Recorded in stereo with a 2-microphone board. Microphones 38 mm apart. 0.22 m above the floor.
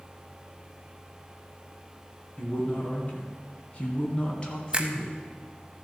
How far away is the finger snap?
About 0.9 m.